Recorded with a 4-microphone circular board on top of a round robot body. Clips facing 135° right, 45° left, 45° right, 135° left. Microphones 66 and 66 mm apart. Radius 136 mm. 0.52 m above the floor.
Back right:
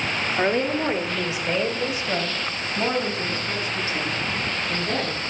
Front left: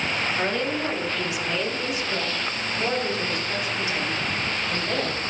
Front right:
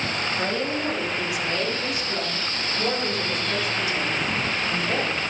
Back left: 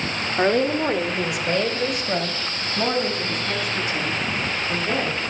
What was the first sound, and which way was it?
A woman speaking, 160° left.